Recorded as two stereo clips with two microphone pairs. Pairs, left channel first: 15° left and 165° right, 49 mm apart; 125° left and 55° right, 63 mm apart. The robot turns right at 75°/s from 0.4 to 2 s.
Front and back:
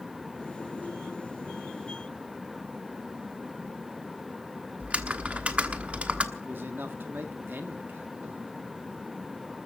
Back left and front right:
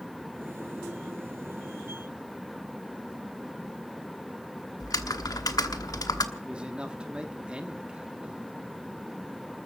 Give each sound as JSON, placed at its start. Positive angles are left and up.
{"t": 4.8, "sound": "typing on a keyboard", "azimuth_deg": 130, "distance_m": 1.2}
{"t": 6.3, "sound": "a man speaking", "azimuth_deg": -125, "distance_m": 1.5}